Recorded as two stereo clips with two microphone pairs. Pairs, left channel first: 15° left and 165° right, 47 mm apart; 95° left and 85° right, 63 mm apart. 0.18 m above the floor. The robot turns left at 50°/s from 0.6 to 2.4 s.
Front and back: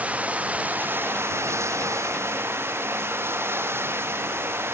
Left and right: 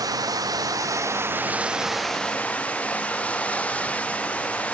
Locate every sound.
0.0 s running water: 105° right; by 4.8 s 165° left